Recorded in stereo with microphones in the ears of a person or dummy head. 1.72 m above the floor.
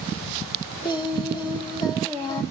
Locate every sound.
0.8 s singing: 25° left (ahead or behind), 1.0 m